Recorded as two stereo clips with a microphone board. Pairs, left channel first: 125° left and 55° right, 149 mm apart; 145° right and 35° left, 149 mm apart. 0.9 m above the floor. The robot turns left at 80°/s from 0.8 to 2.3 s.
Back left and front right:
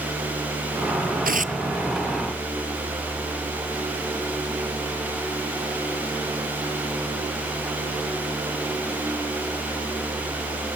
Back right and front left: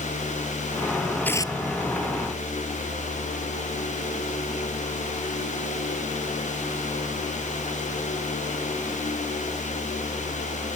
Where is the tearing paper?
65° right; by 1.6 s 95° right.